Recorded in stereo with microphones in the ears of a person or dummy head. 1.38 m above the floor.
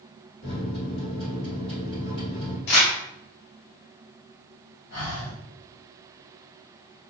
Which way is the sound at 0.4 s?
30° left (ahead or behind).